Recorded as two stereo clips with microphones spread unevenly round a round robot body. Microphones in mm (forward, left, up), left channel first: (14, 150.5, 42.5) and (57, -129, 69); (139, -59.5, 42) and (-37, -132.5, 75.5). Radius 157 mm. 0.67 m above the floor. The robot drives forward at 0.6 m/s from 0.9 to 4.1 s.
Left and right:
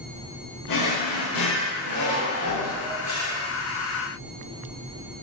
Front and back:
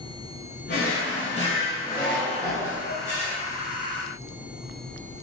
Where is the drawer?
75° left, 0.9 m; by 3.4 s 145° left, 1.6 m.